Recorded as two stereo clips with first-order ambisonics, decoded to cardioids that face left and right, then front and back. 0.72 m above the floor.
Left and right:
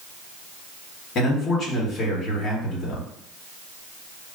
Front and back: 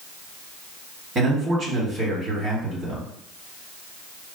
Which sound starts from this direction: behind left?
A man speaking, at 1.1 s.